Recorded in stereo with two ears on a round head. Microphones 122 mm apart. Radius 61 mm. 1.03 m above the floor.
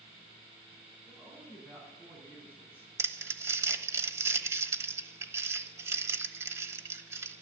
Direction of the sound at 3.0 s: 20° right (ahead or behind).